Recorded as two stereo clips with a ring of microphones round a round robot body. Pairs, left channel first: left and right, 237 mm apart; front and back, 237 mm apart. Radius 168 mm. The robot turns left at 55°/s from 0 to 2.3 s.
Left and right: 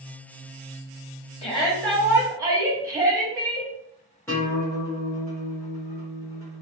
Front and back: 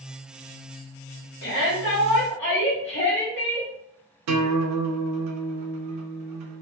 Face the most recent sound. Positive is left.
turn(degrees=170)